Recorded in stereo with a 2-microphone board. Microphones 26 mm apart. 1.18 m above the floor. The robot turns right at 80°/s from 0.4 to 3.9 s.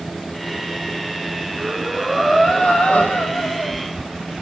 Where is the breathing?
45° right, 6.5 m; by 3.8 s 130° left, 6.5 m.